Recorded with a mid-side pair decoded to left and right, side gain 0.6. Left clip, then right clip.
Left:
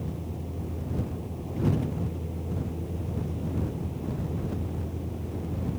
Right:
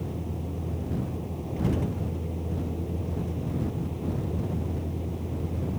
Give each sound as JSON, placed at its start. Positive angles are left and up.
{"t": 0.0, "sound": "a vehicle", "azimuth_deg": -10}